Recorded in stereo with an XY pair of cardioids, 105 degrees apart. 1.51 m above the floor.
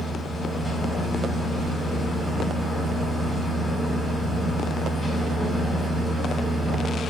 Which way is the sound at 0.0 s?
10° left.